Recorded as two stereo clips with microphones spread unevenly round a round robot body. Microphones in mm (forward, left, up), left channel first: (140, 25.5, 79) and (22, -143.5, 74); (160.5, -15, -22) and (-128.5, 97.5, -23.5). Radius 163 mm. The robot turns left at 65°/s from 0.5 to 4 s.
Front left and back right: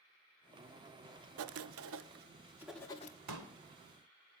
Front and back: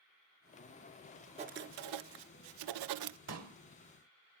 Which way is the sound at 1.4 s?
130° right.